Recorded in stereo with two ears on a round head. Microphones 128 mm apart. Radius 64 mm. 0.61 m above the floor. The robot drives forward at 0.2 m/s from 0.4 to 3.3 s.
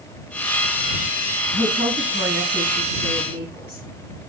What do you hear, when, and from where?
1.5 s a woman speaking: 45° left (ahead or behind), 4.5 m